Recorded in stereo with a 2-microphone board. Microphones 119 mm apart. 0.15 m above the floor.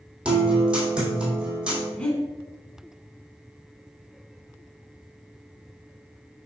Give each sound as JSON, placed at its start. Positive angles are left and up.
{"t": 0.2, "sound": "a guitar", "side_deg": -10, "distance_m": 2.5}
{"t": 2.0, "sound": "breathing", "side_deg": 10, "distance_m": 1.5}